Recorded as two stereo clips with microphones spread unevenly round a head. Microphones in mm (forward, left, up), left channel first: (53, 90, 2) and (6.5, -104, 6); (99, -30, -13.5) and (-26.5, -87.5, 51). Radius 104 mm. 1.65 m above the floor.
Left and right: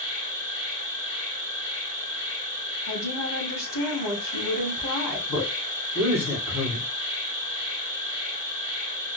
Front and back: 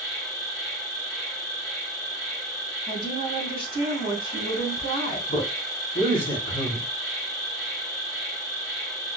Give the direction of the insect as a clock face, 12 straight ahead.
9 o'clock.